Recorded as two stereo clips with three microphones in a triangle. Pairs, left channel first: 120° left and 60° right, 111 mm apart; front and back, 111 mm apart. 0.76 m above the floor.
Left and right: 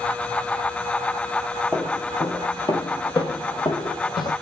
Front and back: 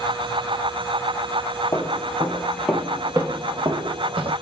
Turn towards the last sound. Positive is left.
turn(degrees=155)